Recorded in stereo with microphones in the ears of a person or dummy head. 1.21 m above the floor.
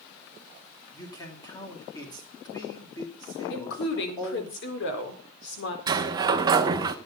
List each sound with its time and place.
0.9 s a man speaking: 20° left (ahead or behind), 3 m
3.5 s a woman speaking: 70° left (ahead or behind), 4 m
5.9 s a sliding door: 25° right (ahead or behind), 1.1 m